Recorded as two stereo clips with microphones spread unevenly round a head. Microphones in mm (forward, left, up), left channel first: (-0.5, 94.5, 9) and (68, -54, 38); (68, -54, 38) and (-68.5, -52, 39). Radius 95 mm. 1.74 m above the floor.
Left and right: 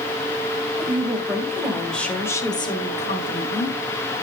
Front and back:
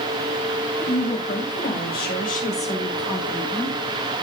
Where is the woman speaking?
10° left, 3 m; by 3.8 s 100° left, 1.7 m.